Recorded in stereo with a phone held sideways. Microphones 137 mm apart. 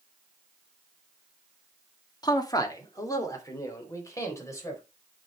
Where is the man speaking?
30° left (ahead or behind), 1.7 m; by 4.8 s 20° left (ahead or behind), 5 m.